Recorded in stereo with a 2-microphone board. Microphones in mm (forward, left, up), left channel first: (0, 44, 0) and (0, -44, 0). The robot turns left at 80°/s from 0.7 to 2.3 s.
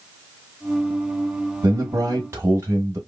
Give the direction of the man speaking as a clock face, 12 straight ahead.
3 o'clock.